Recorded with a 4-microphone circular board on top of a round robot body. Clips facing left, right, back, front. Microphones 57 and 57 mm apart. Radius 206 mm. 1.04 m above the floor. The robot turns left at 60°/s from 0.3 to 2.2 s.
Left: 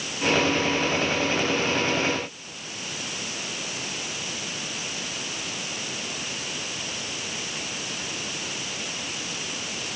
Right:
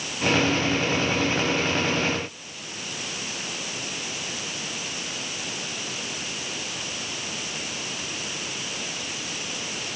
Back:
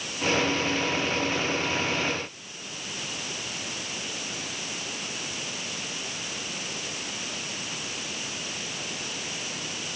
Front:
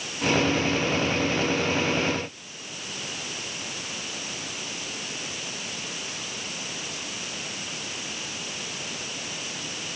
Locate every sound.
Only background noise.